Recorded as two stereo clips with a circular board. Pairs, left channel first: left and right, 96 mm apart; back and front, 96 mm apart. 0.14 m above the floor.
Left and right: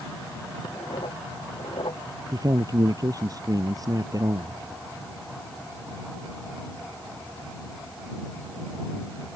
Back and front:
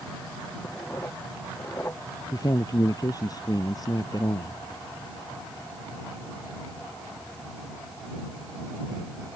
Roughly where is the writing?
Behind left.